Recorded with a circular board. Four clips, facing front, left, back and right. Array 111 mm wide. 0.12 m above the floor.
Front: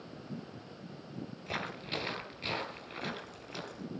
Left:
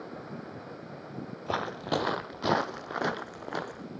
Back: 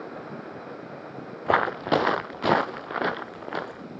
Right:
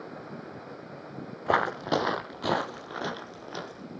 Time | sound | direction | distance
1.5 | footsteps | 155° right | 0.8 m